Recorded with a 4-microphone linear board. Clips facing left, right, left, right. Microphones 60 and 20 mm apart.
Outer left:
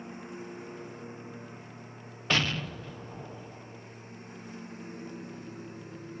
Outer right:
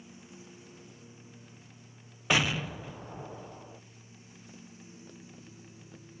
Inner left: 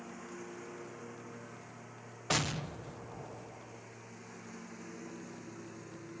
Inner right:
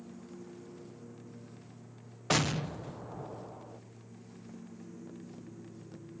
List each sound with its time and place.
0.0 s a lawn mower: 50° left (ahead or behind); by 6.2 s 55° left (ahead or behind)
2.3 s an explosion: 10° right (ahead or behind)